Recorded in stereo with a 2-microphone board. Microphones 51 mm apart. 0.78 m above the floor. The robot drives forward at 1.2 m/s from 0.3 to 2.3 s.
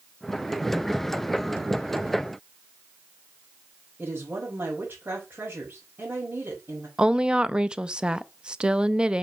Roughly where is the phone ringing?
No phone ringing in this recording.